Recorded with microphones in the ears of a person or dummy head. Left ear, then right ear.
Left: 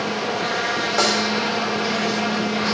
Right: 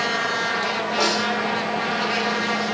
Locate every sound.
1.0 s a snare drum: 75° left (ahead or behind), 6.5 m